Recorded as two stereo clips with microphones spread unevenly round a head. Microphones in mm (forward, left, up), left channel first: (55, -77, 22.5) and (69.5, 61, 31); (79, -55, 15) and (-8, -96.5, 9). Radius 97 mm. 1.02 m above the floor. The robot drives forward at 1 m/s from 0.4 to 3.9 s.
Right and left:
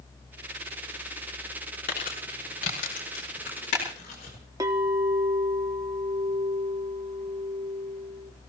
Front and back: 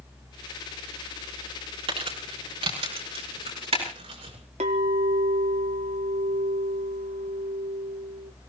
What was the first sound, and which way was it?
Crumpling, 140° right.